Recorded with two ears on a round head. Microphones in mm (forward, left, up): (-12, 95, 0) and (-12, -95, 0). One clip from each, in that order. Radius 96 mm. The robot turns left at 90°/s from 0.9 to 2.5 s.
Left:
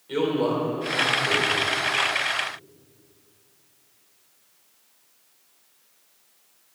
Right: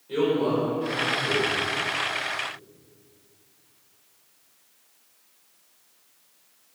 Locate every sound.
0.1 s a man speaking: 35° left, 4.5 m; by 1.6 s 25° right, 4.5 m